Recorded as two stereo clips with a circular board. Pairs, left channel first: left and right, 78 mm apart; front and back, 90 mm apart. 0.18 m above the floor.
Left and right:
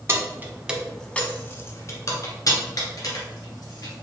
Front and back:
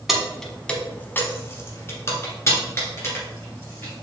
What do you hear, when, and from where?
0.1 s keys jangling: 95° right, 0.9 m; by 4.0 s 60° left, 2.5 m